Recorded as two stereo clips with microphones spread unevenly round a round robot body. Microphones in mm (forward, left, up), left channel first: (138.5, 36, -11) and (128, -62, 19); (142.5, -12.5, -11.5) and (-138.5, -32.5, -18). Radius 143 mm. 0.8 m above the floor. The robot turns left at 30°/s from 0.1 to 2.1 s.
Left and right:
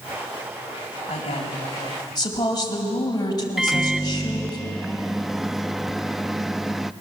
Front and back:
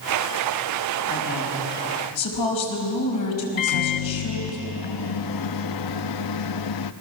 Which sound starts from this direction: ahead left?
A woman speaking, at 1.1 s.